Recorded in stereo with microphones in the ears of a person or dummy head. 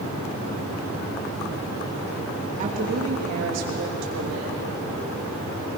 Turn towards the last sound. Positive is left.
turn(degrees=-80)